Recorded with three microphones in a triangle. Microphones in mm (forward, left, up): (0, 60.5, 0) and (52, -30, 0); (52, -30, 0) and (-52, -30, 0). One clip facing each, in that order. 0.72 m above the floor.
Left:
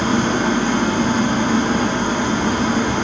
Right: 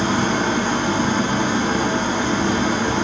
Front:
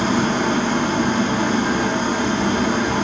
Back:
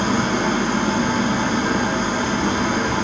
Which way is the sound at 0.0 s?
90° left.